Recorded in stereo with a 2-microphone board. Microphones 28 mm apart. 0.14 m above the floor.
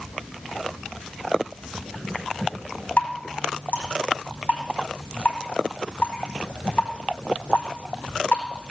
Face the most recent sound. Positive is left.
turn(degrees=55)  # may be behind; listen again after turning